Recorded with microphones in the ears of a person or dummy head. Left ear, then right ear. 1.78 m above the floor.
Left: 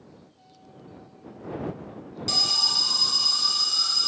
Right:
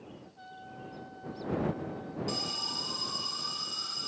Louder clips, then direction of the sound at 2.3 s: Left 13 dB; 35° left (ahead or behind).